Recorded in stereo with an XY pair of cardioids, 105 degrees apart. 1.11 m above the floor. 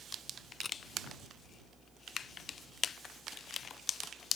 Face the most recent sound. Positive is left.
turn(degrees=35)